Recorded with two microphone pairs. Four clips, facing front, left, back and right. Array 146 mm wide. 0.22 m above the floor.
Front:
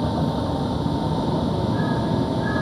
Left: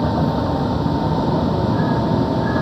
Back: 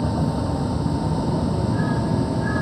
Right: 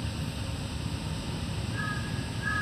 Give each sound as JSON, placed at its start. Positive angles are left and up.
{"t": 0.0, "sound": "a vehicle", "azimuth_deg": 75}